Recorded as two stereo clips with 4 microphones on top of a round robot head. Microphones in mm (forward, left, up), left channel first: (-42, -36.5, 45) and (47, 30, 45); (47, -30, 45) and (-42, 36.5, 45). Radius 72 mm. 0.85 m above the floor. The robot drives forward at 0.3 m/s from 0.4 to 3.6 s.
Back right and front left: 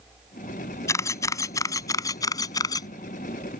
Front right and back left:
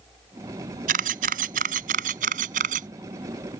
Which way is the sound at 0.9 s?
150° left.